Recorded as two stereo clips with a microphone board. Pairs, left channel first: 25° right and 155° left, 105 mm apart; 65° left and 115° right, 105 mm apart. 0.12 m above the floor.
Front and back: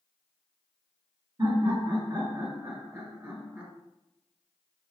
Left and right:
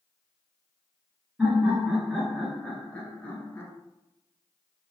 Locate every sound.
1.4 s laughter: 170° left, 1.6 m; by 3.7 s 100° left, 1.3 m